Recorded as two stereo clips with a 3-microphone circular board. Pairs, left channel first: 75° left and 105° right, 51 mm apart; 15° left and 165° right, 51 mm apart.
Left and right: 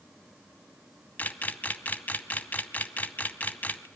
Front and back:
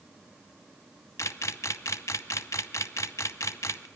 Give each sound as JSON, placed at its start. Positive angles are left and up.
{"t": 1.2, "sound": "a camera shutter", "azimuth_deg": 20, "distance_m": 0.7}